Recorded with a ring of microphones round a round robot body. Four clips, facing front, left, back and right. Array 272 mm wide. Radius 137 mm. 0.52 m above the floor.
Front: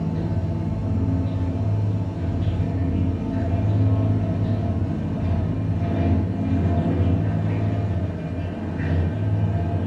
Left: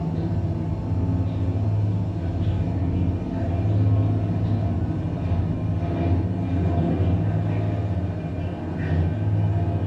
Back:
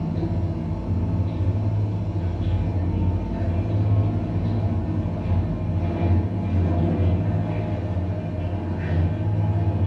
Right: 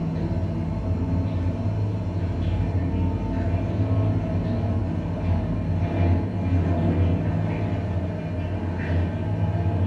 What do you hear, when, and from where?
0.0 s running water: 15° right, 2.5 m